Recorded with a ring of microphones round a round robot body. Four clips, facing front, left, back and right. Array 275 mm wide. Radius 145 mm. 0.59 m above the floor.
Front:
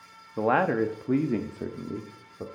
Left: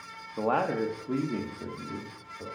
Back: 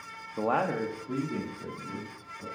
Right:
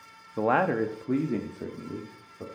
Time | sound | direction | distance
0.4 | a man speaking | 55° right | 0.6 m